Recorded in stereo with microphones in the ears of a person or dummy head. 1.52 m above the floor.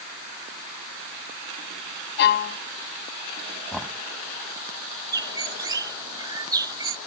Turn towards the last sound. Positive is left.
turn(degrees=-10)  # may be behind; listen again after turning